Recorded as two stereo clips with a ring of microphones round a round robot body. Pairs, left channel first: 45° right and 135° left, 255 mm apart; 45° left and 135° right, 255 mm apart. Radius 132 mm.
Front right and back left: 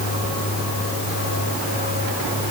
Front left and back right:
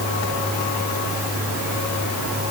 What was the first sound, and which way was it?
Only background noise.